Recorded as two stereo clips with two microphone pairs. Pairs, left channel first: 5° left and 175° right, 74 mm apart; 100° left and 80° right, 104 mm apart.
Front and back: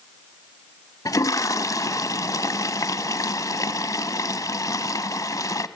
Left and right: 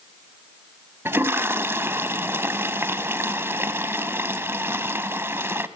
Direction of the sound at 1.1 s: 15° right.